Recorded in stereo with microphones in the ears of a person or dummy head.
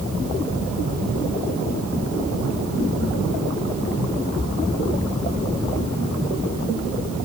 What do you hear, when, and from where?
Only background noise.